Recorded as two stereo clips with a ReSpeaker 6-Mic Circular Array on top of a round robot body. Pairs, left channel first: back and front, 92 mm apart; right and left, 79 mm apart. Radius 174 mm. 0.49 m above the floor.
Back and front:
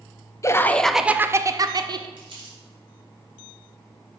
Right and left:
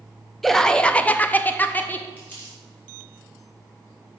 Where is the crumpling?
20° right, 3.5 m.